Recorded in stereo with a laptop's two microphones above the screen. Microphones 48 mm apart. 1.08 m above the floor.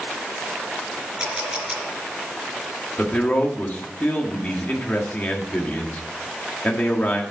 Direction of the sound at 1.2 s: 15° right (ahead or behind).